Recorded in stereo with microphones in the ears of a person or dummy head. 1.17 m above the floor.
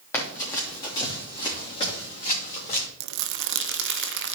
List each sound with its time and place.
0.1 s running footsteps: 10° left (ahead or behind), 3 m; by 2.9 s 35° left (ahead or behind), 3.5 m
3.0 s crumpling: 60° right (ahead or behind), 0.6 m